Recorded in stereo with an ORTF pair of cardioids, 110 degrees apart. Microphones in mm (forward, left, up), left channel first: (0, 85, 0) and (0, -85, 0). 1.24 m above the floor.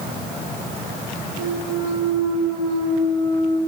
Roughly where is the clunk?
Ahead right.